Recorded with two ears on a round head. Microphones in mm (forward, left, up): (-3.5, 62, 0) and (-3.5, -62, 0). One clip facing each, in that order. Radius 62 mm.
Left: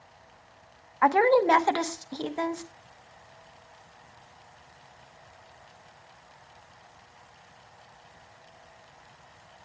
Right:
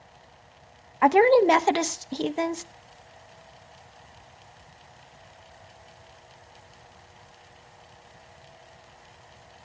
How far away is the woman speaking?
About 0.8 m.